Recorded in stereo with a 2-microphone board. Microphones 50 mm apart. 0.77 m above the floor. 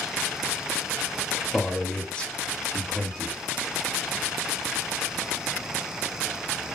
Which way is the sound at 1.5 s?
20° left (ahead or behind).